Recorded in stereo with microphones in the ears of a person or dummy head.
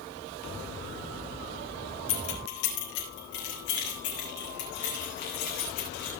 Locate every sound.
2.1 s keys jangling: 70° left (ahead or behind), 4 m; by 6.1 s 50° left (ahead or behind), 9 m